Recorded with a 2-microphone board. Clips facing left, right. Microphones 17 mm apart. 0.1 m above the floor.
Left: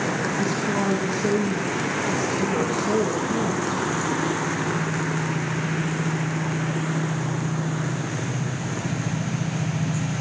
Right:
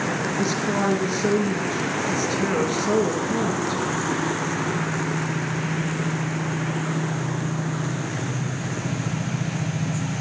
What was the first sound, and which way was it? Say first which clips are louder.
A woman speaking: right 3 dB; 40° right (ahead or behind).